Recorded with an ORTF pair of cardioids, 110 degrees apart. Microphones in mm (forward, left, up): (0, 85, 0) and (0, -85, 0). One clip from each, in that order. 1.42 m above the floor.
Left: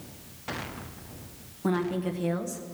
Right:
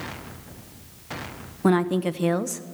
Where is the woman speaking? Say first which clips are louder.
Right 7 dB; 40° right, 0.8 m.